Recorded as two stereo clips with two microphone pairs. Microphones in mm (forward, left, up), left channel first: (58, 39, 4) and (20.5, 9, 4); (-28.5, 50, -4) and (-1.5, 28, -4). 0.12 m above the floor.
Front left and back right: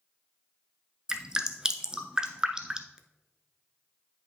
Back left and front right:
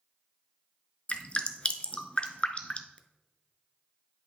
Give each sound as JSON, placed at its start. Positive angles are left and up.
{"t": 1.1, "sound": "dripping", "azimuth_deg": 155, "distance_m": 0.6}